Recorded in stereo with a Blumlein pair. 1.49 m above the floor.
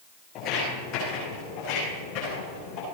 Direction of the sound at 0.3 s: 35° left.